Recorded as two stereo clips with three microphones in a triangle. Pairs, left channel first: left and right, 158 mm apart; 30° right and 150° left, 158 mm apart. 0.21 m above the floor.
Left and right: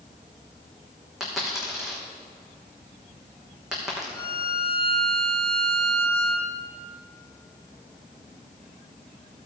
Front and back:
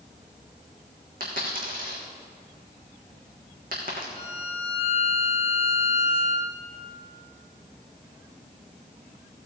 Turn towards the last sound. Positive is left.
turn(degrees=165)